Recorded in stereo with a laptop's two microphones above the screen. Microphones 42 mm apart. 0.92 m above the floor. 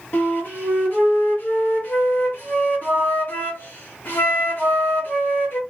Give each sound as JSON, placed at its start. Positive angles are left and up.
{"t": 0.1, "sound": "a flute", "side_deg": 45, "distance_m": 1.0}